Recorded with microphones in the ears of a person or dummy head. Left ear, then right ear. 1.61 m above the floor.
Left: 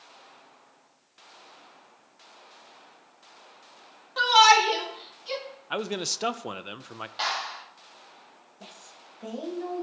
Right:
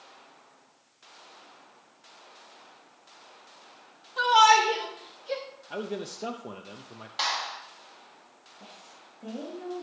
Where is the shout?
45° left (ahead or behind), 4.5 m; by 5.4 s 50° left (ahead or behind), 4 m.